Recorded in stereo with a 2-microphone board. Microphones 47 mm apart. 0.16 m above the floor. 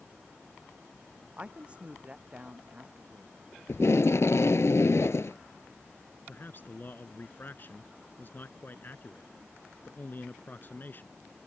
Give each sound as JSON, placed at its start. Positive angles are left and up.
{"t": 1.4, "sound": "a woman speaking", "side_deg": -25}
{"t": 3.7, "sound": "tape being pulled", "side_deg": 75}
{"t": 6.3, "sound": "a man speaking", "side_deg": 45}